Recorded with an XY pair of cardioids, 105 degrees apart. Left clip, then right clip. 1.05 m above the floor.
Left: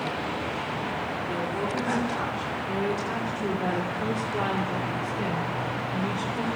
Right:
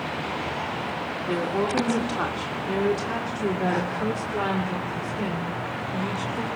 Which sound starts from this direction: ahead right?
A woman speaking, at 1.3 s.